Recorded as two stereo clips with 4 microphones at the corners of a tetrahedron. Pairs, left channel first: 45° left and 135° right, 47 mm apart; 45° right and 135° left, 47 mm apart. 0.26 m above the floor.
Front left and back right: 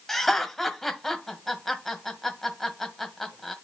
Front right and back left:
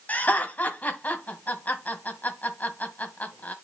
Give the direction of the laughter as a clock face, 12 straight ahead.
1 o'clock.